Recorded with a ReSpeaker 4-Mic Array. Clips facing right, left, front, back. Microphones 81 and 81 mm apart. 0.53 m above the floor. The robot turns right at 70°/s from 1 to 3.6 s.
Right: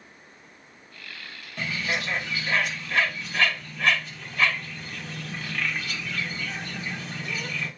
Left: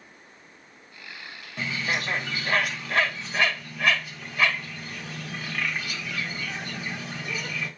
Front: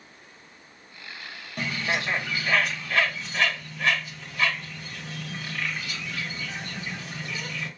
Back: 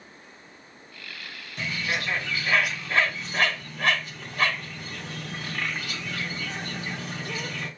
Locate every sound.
1.6 s a bird: 25° left, 0.8 m; by 7.7 s 170° left, 0.8 m